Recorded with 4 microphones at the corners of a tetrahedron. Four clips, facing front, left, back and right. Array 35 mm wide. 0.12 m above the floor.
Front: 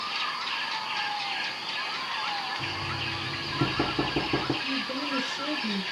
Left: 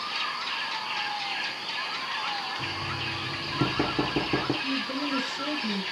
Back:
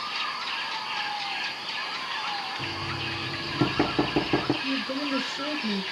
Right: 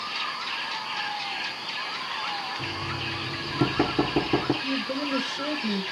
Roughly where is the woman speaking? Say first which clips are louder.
Right 1 dB, back 2 dB; behind right.